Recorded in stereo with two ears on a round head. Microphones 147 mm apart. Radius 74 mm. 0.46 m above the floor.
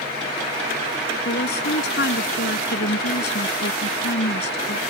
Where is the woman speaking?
75° left (ahead or behind).